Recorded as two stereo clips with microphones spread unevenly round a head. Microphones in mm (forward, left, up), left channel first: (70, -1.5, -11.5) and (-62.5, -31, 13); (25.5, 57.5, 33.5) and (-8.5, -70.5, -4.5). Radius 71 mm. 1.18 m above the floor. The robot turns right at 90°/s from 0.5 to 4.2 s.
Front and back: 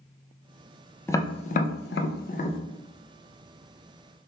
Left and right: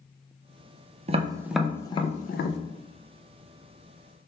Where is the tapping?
65° right, 0.5 m; by 2.6 s 75° left, 0.5 m.